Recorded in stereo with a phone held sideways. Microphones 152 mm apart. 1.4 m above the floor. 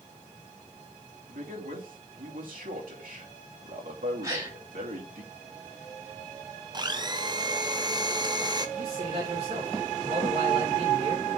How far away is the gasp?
About 2.5 m.